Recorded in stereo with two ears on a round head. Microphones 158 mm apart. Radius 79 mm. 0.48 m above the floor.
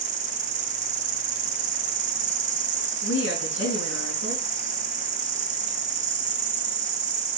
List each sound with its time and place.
0.0 s an insect: 45° right (ahead or behind), 2 m
3.0 s a woman speaking: 80° left, 4 m